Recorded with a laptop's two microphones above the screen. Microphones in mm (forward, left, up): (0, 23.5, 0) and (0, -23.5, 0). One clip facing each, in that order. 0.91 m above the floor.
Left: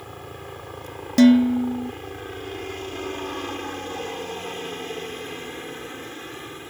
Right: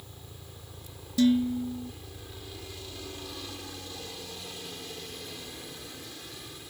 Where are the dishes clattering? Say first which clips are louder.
Left 9 dB; 75° left (ahead or behind).